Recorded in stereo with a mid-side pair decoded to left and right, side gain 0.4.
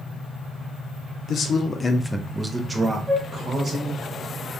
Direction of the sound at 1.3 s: 65° left.